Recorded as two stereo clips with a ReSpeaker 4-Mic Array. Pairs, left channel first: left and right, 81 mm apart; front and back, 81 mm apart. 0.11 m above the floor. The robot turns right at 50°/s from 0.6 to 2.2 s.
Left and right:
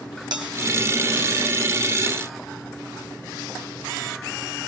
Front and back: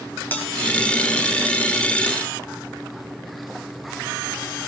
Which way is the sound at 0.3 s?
65° right.